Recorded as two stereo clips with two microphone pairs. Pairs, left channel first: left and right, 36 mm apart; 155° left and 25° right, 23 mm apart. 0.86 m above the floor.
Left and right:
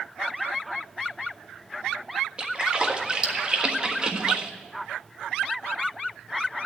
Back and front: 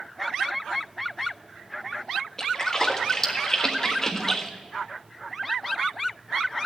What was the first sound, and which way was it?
A splash, 145° right.